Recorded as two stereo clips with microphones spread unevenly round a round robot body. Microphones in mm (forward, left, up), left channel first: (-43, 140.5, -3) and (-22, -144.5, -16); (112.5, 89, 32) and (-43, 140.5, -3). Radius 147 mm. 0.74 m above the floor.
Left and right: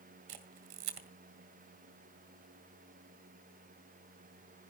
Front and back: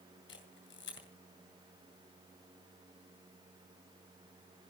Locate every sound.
0.3 s a camera shutter: 75° right, 2 m